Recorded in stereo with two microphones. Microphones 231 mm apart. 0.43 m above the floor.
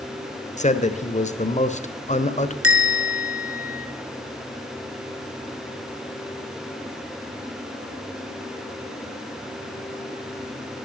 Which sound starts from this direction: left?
A man speaking, at 0.6 s.